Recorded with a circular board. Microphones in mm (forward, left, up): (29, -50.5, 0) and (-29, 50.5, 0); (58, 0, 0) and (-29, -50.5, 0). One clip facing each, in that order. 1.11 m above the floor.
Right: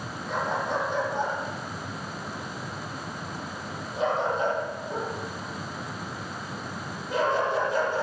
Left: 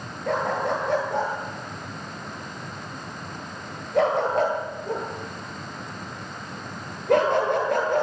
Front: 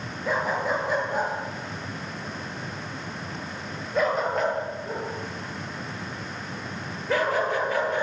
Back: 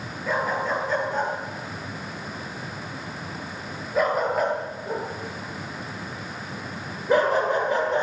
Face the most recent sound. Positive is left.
turn(degrees=145)